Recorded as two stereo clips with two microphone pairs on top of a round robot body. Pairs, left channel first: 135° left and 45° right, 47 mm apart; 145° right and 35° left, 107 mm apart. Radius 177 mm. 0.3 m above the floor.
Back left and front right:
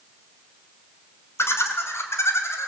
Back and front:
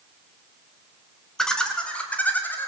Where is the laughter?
130° left, 3.5 m; by 2.7 s 145° left, 4 m.